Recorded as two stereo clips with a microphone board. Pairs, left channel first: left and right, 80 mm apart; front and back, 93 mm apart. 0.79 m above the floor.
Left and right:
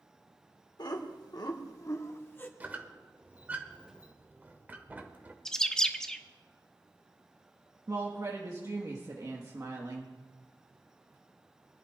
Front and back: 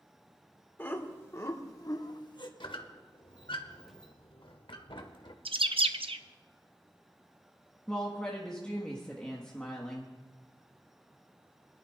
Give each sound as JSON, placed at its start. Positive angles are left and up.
{"t": 0.8, "sound": "laughter", "azimuth_deg": 65, "distance_m": 2.0}
{"t": 2.6, "sound": "a squeak", "azimuth_deg": -20, "distance_m": 1.1}
{"t": 5.5, "sound": "a bird", "azimuth_deg": 175, "distance_m": 0.6}
{"t": 7.9, "sound": "a woman speaking", "azimuth_deg": -75, "distance_m": 1.4}